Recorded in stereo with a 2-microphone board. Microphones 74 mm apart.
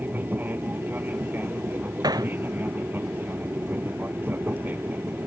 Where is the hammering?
65° right (ahead or behind).